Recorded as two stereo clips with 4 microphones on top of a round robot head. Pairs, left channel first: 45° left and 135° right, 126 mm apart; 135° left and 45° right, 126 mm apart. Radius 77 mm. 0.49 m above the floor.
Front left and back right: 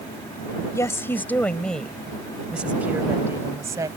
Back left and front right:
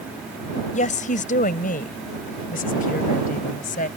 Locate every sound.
0.7 s a woman speaking: 115° left; by 3.9 s 160° left